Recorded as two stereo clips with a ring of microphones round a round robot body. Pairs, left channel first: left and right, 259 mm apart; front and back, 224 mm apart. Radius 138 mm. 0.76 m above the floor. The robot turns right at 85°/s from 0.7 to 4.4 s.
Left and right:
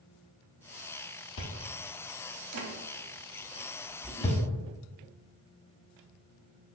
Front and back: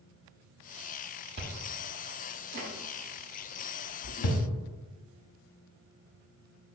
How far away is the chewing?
About 0.7 m.